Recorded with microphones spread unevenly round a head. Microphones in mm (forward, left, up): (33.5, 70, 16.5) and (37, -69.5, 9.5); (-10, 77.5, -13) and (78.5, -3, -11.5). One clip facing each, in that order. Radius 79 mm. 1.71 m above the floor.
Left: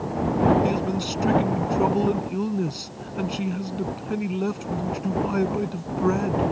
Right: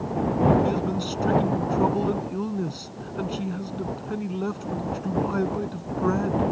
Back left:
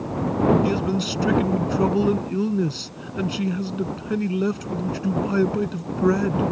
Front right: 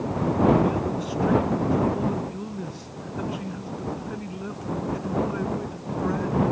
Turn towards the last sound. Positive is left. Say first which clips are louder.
# left 1 dB, back left 2 dB
turn(degrees=175)